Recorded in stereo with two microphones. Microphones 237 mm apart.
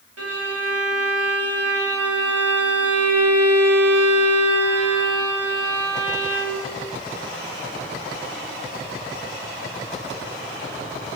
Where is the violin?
80° right, 1.1 m.